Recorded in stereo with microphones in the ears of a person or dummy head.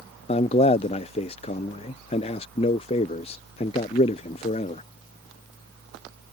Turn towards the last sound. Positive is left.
turn(degrees=30)  # may be behind; listen again after turning